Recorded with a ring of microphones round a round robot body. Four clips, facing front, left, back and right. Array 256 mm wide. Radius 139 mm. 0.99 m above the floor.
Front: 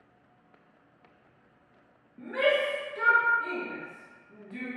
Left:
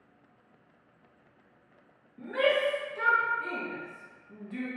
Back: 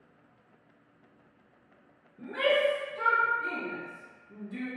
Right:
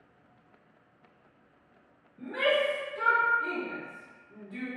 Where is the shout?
35° left, 1.7 m; by 4.7 s 100° left, 1.6 m.